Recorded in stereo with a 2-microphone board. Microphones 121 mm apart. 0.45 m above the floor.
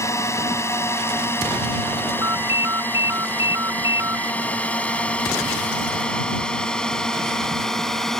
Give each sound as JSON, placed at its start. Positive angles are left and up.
{"t": 0.0, "sound": "a drone", "side_deg": 25}
{"t": 2.2, "sound": "a ringtone", "side_deg": -25}